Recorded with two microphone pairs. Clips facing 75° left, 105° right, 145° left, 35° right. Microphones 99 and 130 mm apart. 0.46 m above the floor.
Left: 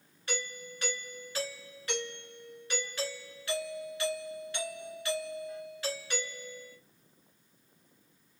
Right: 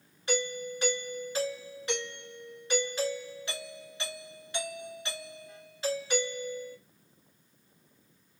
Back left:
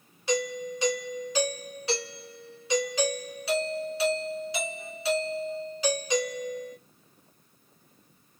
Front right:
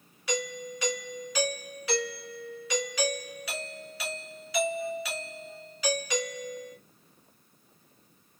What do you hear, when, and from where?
0.3 s a doorbell: 165° right, 2.5 m